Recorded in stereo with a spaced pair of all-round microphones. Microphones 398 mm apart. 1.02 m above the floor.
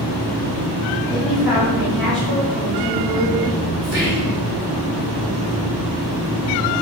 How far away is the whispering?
About 3 m.